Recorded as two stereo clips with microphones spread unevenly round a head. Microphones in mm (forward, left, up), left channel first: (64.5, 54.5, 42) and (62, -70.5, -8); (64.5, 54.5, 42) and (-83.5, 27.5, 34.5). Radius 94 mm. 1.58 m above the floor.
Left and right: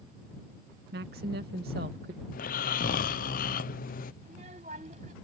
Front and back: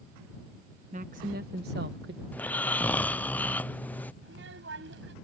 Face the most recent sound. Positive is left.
turn(degrees=-150)